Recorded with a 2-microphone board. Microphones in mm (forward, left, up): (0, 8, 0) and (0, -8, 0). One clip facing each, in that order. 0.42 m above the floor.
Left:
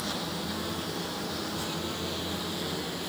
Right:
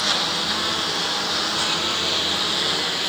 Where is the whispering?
I don't hear whispering.